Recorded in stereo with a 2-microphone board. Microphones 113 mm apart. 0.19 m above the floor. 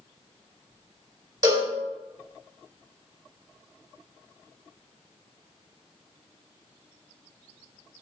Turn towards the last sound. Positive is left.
turn(degrees=-30)  # may be behind; listen again after turning